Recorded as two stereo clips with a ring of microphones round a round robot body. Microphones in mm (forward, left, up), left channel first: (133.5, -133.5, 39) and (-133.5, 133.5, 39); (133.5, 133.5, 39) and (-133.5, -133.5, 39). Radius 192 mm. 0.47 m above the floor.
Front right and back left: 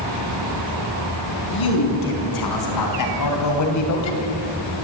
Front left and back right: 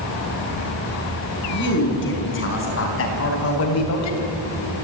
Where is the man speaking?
15° right, 6 m; by 4.3 s 5° left, 3 m.